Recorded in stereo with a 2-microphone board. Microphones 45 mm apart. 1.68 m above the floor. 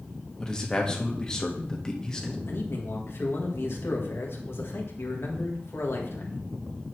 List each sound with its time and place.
0.4 s a man speaking: 15° left (ahead or behind), 1.5 m
2.5 s a man speaking: 60° left (ahead or behind), 1.7 m